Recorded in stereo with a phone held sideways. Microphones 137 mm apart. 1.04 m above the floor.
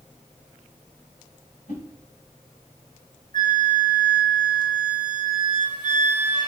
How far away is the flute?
About 3.5 m.